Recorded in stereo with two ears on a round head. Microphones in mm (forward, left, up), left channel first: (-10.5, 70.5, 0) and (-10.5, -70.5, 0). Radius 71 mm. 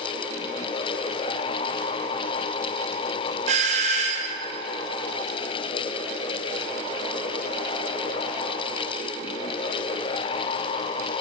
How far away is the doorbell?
About 0.9 m.